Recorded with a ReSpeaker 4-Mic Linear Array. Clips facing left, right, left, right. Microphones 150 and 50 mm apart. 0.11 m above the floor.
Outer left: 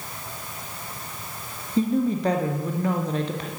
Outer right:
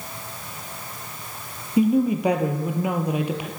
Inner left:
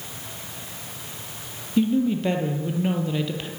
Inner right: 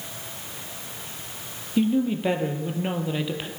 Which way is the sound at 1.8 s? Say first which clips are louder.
Outer right 3 dB, inner left 1 dB; 10° right (ahead or behind).